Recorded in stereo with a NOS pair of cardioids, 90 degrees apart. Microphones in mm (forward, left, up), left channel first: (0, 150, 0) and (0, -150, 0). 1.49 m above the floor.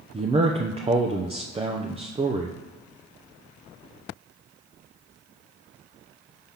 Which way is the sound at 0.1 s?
20° right.